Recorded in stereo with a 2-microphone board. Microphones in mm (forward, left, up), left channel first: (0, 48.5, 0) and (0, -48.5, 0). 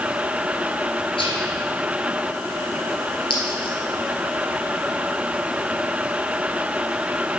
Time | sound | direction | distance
1.2 | whispering | 70° left (ahead or behind) | 3.5 m
3.3 | a clink | 70° left (ahead or behind) | 3 m